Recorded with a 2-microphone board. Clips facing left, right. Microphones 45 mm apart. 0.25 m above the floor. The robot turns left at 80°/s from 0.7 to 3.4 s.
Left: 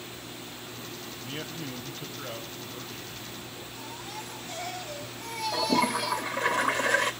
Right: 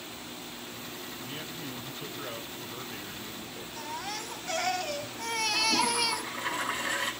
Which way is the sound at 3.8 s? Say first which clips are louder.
Right 5 dB; 75° right (ahead or behind).